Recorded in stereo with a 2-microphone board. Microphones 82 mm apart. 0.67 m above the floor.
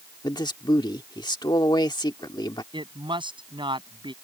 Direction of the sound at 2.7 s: 80° right.